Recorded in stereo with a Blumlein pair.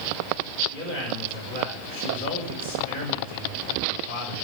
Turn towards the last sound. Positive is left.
turn(degrees=45)